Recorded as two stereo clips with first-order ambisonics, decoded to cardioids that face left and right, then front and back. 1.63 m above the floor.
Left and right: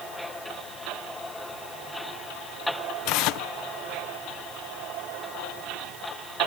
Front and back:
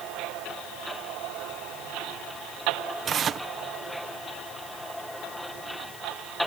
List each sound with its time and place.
3.0 s tearing paper: 120° left